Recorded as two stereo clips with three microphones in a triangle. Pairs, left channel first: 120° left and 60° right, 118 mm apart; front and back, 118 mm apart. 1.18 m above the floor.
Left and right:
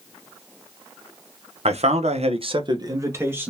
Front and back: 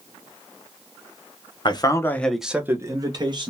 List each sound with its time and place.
1.6 s a man speaking: 45° right, 0.7 m; by 3.5 s 135° right, 1.2 m